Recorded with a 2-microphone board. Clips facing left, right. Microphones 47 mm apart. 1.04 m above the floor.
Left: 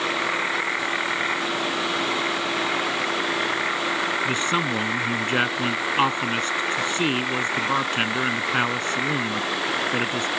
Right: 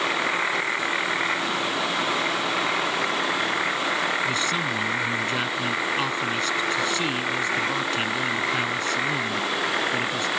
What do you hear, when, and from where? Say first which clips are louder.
4.2 s a man speaking: left 2 dB; 35° left (ahead or behind)